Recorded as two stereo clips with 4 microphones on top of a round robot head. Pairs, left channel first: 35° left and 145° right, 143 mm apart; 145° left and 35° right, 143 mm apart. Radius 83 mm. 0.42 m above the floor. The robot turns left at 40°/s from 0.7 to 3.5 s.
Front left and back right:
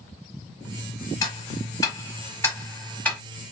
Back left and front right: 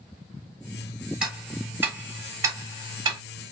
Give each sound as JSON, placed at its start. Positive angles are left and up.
{"t": 1.2, "sound": "ticking", "azimuth_deg": 40, "distance_m": 1.3}